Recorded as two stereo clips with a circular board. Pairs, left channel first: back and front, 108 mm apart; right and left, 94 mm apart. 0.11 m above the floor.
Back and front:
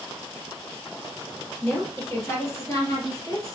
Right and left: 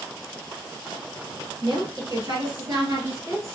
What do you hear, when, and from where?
1.6 s a woman speaking: 110° left, 2.5 m; by 3.5 s 140° left, 2.5 m